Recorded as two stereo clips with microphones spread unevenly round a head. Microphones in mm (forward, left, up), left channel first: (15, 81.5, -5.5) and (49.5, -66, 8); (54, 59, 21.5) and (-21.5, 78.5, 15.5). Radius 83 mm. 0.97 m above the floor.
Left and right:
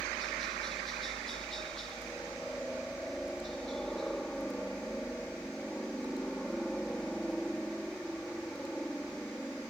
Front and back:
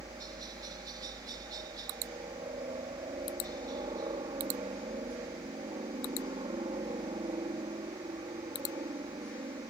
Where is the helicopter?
170° right.